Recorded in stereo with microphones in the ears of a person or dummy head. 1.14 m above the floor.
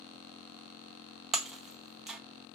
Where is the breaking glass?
Centre (ahead or behind), 0.6 m.